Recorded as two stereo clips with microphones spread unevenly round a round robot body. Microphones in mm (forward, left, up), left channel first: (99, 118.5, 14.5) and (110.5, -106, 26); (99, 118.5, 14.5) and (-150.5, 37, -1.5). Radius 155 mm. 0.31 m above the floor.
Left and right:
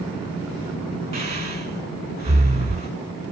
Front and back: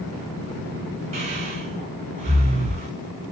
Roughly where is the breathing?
Behind right.